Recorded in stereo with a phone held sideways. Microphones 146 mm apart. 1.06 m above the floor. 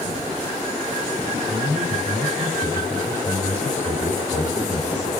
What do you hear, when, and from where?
1.3 s a man speaking: 40° left (ahead or behind), 7 m; by 5.1 s 50° left (ahead or behind), 5.5 m